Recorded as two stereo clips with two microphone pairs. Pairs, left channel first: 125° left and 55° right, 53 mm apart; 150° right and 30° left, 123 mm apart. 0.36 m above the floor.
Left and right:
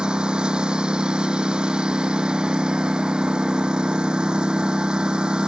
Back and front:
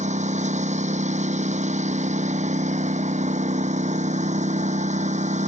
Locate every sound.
0.0 s a lawn mower: 15° left